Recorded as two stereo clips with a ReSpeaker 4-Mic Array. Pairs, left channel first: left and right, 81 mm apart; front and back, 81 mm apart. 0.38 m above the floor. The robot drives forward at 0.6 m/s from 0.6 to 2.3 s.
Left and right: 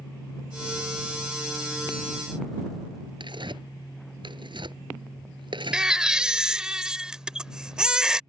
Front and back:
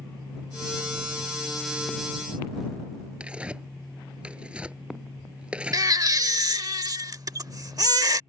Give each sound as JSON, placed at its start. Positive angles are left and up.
{"t": 3.2, "sound": "tearing paper", "azimuth_deg": -105}
{"t": 5.7, "sound": "a baby crying", "azimuth_deg": -165}